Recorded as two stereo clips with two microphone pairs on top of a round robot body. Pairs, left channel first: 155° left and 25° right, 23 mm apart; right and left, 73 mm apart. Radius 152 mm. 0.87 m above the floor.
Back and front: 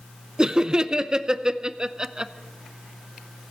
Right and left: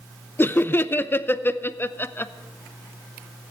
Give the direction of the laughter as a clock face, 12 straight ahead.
2 o'clock.